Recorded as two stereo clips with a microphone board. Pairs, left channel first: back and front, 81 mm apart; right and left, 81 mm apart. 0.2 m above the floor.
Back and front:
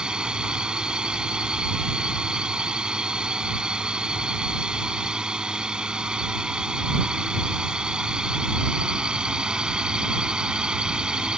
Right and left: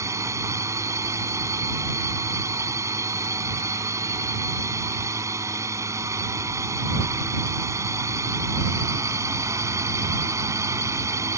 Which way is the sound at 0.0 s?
75° left.